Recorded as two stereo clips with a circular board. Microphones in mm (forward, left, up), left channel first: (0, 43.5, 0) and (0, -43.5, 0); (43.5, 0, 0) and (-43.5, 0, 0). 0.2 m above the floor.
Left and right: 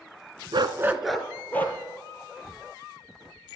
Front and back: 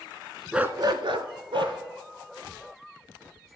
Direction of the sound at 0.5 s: 100° right.